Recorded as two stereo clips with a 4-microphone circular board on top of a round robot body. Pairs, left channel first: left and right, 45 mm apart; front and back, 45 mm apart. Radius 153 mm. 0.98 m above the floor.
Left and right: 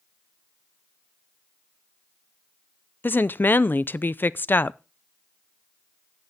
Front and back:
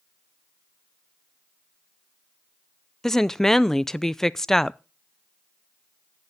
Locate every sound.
3.0 s a woman speaking: 80° left, 0.5 m